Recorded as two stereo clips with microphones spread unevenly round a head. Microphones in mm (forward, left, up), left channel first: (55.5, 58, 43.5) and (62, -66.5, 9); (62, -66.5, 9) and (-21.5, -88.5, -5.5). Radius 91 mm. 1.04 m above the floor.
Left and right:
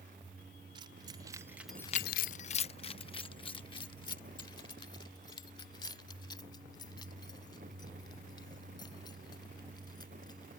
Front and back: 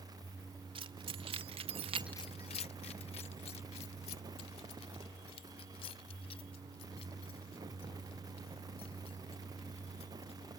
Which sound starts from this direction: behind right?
Keys jangling, at 0.8 s.